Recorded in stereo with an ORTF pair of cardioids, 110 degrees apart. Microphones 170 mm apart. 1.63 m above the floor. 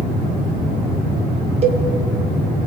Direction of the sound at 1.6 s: 35° right.